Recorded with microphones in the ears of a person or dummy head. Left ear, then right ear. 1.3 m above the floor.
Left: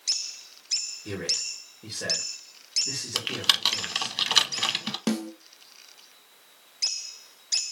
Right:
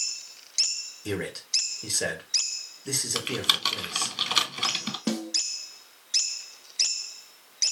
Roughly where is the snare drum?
Centre.